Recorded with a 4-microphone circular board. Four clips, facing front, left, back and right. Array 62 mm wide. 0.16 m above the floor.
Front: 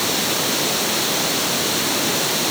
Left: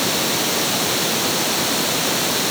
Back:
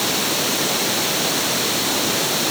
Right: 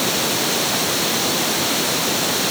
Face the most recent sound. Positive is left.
No sound to turn to.